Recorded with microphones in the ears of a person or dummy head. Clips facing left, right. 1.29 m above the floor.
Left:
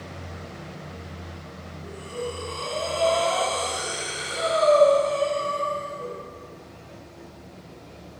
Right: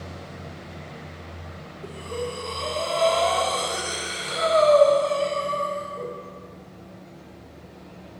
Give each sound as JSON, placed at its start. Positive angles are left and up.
{"t": 1.8, "sound": "breathing", "side_deg": -65, "distance_m": 0.8}